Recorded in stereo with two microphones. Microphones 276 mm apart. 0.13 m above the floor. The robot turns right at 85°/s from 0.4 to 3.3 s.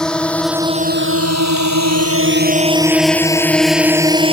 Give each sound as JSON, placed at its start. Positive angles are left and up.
{"t": 0.0, "sound": "a drone", "side_deg": 0}